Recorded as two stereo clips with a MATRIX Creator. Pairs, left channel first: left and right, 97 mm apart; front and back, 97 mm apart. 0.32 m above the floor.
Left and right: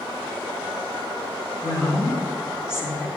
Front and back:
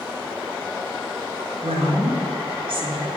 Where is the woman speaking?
155° left, 3.5 m.